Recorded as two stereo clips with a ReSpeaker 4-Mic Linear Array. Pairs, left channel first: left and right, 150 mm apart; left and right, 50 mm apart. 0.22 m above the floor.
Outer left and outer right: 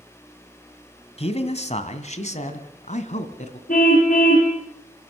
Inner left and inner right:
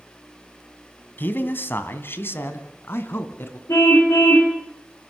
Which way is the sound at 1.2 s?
40° left (ahead or behind).